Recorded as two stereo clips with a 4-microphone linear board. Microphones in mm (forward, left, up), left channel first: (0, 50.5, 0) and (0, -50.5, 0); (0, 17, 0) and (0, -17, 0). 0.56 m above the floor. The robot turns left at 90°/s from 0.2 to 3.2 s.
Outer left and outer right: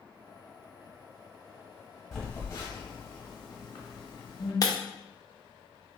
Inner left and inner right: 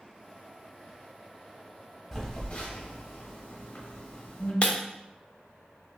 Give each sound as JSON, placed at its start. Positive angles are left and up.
{"t": 2.1, "sound": "a phone buzzing", "side_deg": -5, "distance_m": 1.0}
{"t": 4.6, "sound": "breaking glass", "side_deg": 40, "distance_m": 0.5}